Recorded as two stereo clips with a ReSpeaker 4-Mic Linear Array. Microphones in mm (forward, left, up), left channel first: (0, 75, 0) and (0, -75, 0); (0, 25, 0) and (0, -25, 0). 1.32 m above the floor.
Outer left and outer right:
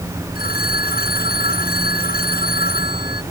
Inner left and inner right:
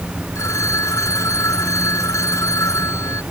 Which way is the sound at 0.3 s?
85° left.